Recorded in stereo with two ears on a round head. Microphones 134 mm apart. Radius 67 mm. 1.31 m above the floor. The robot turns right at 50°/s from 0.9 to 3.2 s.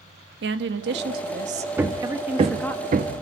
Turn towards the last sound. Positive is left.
turn(degrees=-55)  # may be behind; listen again after turning